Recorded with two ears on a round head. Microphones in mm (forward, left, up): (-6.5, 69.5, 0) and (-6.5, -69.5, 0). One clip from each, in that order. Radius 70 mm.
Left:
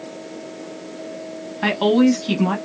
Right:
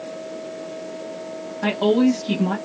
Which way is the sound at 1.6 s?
50° left (ahead or behind).